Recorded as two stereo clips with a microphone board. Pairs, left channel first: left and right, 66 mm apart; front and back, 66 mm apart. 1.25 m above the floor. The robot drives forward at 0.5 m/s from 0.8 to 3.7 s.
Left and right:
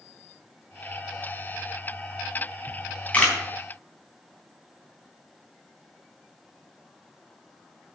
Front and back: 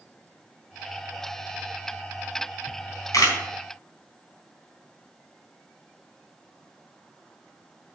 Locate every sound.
2.7 s a camera shutter: 20° left, 3.5 m; by 3.4 s 25° left, 3 m